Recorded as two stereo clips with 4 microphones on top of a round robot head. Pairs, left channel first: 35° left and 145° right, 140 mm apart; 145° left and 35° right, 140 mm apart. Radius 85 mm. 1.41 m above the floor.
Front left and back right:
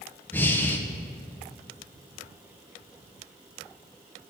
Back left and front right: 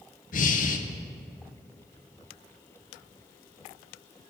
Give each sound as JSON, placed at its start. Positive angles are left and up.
{"t": 0.3, "sound": "breathing", "azimuth_deg": 110, "distance_m": 0.7}